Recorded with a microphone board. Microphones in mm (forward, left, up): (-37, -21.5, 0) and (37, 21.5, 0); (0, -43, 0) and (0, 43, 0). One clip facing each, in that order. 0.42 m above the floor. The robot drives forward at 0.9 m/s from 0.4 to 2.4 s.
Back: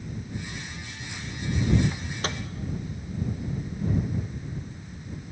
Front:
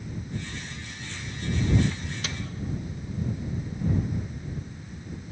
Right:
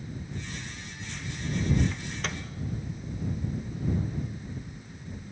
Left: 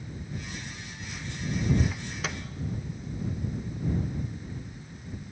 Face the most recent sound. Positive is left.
turn(degrees=175)